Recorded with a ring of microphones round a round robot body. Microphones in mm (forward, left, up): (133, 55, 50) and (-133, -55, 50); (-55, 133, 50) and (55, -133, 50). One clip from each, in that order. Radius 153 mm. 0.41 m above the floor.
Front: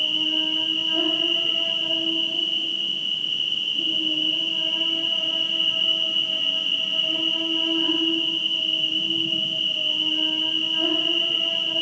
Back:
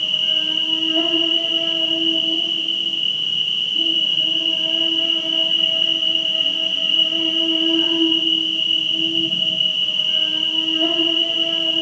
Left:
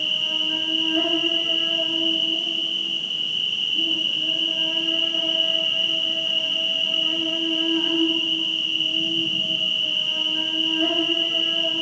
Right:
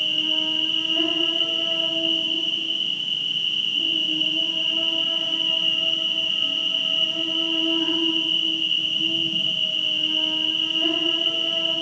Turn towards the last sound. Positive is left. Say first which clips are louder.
# back 4 dB, right 1 dB
turn(degrees=165)